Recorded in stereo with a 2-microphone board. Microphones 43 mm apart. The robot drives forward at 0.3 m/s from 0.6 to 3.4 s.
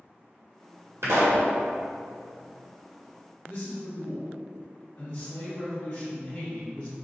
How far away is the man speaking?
About 1.4 m.